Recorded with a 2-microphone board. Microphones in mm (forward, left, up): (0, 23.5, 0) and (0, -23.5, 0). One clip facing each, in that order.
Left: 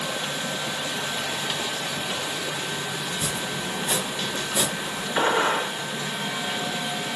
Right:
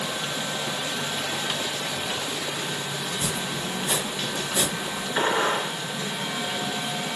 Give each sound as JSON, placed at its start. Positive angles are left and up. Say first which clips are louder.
{"t": 3.1, "sound": "chopping", "louder": "even", "side_deg": 15, "distance_m": 3.0}
{"t": 5.2, "sound": "a gunshot", "louder": "left 2 dB", "side_deg": 35, "distance_m": 3.5}